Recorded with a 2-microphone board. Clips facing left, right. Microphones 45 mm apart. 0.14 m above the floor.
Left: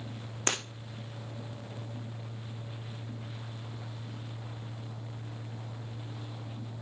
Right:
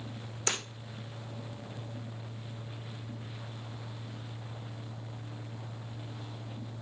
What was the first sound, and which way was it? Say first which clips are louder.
Breaking glass: left 2 dB; 40° left (ahead or behind).